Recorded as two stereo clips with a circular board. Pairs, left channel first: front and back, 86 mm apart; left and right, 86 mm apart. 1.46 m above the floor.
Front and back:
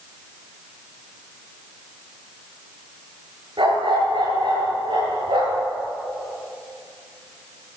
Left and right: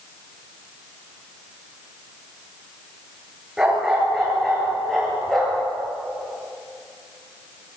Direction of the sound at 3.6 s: 170° right.